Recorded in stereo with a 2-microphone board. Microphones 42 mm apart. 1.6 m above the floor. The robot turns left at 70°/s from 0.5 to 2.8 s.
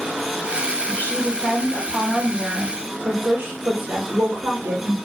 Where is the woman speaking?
80° left, 0.8 m; by 5.0 s 55° right, 0.8 m.